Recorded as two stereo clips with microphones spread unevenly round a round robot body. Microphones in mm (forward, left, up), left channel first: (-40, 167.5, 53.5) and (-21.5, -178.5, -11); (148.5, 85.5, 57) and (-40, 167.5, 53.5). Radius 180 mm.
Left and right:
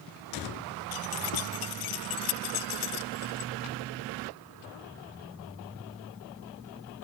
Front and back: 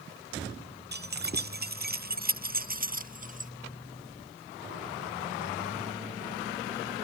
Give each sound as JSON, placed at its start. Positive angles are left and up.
{"t": 0.9, "sound": "keys jangling", "azimuth_deg": 120}